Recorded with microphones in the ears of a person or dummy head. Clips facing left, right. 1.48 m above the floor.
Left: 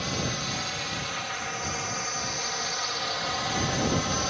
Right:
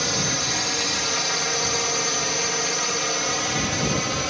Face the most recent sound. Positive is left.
turn(degrees=-45)  # may be behind; listen again after turning